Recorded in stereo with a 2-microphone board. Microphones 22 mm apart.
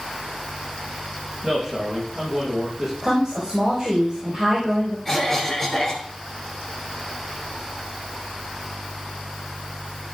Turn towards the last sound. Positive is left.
turn(degrees=25)  # may be behind; listen again after turning